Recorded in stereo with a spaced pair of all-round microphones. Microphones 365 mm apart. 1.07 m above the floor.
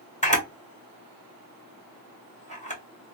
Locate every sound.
0.2 s a camera shutter: 20° left (ahead or behind), 1.1 m